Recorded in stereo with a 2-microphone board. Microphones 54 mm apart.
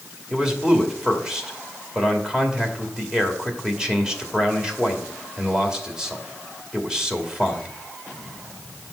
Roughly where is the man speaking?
Centre.